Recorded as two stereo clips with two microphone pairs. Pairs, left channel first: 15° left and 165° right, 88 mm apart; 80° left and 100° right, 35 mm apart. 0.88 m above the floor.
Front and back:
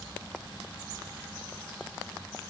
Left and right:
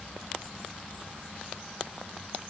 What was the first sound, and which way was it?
Only background noise.